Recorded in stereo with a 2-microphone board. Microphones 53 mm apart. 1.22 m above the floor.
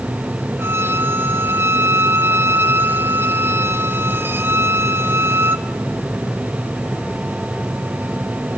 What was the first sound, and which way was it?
A violin, 40° right (ahead or behind).